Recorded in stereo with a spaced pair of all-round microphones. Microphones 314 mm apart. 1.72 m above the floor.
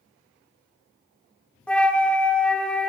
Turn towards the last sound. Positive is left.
turn(degrees=5)  # may be behind; listen again after turning